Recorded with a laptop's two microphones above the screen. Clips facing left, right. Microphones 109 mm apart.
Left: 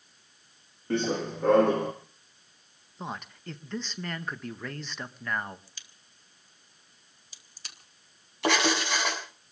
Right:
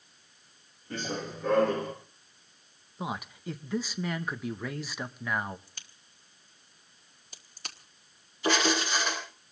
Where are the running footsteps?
70° left (ahead or behind), 3 m; by 1.9 s 65° left (ahead or behind), 2 m.